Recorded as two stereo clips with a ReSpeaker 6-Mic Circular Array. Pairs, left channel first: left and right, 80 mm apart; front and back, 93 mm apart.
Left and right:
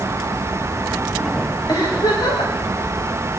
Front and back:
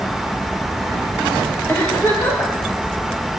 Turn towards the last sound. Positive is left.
turn(degrees=65)